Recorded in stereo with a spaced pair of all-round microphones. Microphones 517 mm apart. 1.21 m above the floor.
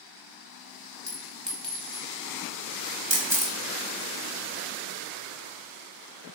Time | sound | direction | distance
1.1 | a clink | centre (ahead or behind) | 1.0 m
3.1 | a camera shutter | 5° right (ahead or behind) | 1.2 m